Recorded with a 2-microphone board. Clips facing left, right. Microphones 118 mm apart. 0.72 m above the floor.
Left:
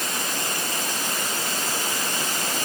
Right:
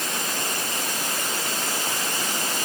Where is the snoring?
No snoring in this recording.